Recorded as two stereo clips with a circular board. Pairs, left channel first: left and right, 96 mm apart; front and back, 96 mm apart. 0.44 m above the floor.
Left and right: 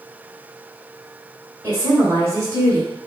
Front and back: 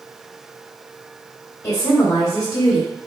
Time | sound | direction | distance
1.6 | a woman speaking | 45° right | 1.7 m